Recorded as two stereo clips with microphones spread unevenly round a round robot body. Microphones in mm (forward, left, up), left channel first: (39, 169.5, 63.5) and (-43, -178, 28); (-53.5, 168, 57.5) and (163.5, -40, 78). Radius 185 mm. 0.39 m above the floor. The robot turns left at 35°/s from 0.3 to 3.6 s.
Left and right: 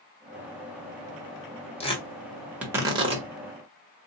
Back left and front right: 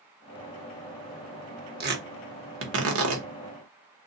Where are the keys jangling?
I don't hear keys jangling.